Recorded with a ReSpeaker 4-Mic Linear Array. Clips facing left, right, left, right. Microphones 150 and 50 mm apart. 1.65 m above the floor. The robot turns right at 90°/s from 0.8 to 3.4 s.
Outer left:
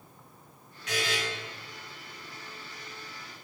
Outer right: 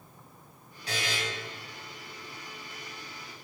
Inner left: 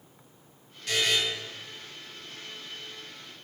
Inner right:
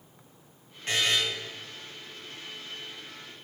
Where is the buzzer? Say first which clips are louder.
Outer left 3 dB, even; 35° right (ahead or behind), 3 m; by 1.2 s 10° right (ahead or behind), 3 m.